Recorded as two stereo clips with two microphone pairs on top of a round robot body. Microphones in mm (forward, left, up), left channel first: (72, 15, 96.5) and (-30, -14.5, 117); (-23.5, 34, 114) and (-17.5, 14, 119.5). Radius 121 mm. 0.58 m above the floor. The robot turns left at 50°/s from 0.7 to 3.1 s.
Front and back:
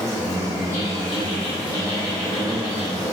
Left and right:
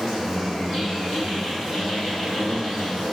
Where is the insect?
10° left, 1.1 m; by 3.1 s 110° right, 1.1 m.